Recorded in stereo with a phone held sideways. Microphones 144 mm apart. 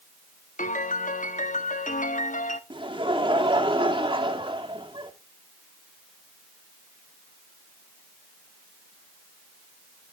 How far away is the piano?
About 0.9 m.